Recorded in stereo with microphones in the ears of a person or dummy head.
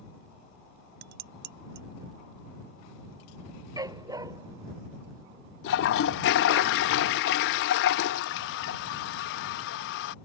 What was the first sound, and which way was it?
Dishes clattering, 55° right (ahead or behind).